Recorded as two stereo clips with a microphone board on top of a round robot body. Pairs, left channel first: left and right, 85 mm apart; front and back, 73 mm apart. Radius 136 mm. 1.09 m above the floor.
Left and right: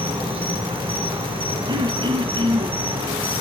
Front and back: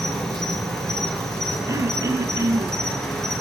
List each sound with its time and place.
0.0 s an insect: 85° right, 7 m
1.7 s throat clearing: 130° right, 1.5 m